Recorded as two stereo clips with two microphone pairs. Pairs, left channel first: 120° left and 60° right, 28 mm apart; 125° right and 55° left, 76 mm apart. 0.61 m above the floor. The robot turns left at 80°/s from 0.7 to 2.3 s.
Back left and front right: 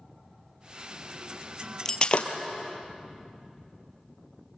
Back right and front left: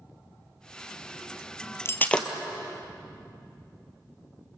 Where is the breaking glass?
170° right, 1.5 m; by 2.4 s 150° left, 1.5 m.